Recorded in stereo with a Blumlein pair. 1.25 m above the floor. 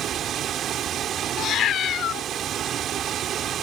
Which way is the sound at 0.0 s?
30° right.